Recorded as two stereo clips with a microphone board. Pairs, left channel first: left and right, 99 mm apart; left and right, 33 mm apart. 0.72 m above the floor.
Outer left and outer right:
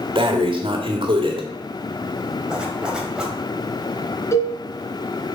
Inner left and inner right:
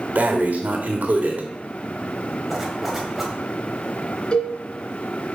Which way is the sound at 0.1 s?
55° right (ahead or behind).